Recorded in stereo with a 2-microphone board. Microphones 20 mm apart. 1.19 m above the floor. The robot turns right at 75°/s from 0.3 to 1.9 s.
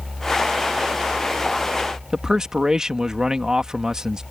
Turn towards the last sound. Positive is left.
turn(degrees=-35)  # may be behind; listen again after turning